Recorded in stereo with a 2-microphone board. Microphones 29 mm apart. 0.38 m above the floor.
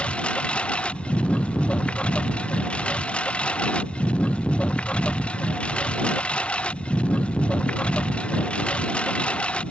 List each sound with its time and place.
0.0 s a lawn mower: 45° left (ahead or behind)